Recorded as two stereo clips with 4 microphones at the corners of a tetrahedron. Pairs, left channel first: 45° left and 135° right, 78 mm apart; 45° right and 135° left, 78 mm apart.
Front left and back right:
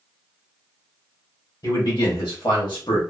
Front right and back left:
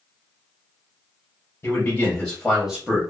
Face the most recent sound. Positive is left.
turn(degrees=65)